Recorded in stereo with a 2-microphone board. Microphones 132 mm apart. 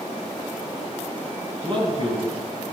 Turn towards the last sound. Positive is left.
turn(degrees=-40)  # may be behind; listen again after turning